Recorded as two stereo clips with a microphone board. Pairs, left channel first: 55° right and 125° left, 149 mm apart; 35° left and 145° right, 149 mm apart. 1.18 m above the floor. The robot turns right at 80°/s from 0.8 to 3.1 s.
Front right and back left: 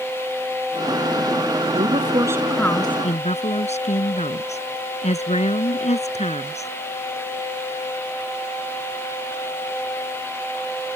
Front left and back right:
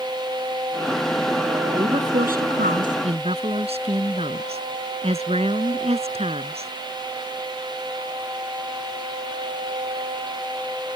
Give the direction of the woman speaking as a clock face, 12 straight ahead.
7 o'clock.